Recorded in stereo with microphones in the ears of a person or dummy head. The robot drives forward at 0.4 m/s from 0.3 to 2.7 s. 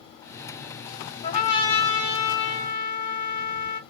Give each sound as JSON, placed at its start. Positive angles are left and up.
{"t": 1.2, "sound": "a trumpet", "side_deg": 45, "distance_m": 1.8}